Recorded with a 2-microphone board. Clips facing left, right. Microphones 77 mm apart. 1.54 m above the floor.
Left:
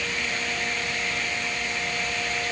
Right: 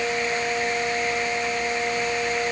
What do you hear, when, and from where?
Only background noise.